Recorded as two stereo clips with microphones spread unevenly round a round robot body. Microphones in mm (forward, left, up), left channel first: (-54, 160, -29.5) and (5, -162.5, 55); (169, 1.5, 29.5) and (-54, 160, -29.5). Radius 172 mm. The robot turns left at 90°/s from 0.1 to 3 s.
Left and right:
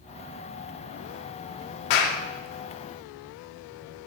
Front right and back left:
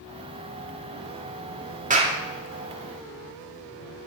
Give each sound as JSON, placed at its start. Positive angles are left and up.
{"t": 1.9, "sound": "a clap", "azimuth_deg": 85, "distance_m": 2.0}